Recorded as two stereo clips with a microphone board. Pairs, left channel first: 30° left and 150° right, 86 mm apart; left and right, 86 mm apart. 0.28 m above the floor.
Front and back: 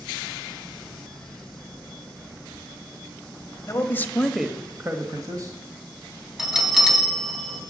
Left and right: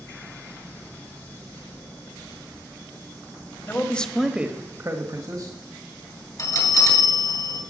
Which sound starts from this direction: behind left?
A bell, at 6.4 s.